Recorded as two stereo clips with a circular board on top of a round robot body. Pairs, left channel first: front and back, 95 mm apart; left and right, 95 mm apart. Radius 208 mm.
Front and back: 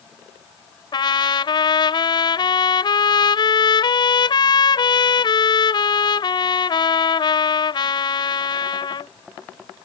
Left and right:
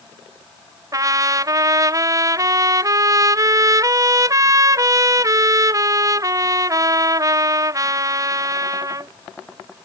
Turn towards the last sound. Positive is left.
turn(degrees=-40)